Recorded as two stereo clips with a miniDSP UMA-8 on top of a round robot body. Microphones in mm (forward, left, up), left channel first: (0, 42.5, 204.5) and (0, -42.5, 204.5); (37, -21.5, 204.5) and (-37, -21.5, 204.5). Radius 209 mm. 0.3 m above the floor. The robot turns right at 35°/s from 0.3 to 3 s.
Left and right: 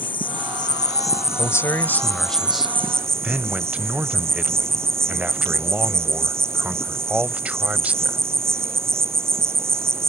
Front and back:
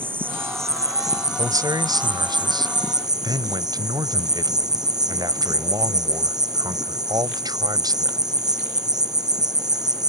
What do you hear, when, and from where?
0.0 s an insect: 115° left; by 10.1 s 150° right
1.4 s a man speaking: 140° left; by 8.2 s 165° right